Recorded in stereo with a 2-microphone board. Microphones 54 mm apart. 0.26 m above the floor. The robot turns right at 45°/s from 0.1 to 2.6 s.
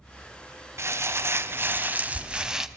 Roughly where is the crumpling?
Right.